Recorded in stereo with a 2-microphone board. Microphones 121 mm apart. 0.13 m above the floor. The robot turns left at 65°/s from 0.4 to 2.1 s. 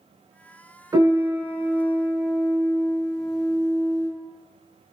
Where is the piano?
95° right, 1.5 m; by 4.1 s 170° right, 1.5 m.